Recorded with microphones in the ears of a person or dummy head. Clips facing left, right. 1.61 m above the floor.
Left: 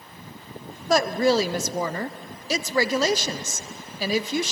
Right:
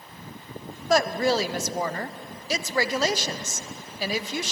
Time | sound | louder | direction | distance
0.9 | a woman speaking | left 2 dB | 75° left (ahead or behind) | 0.6 m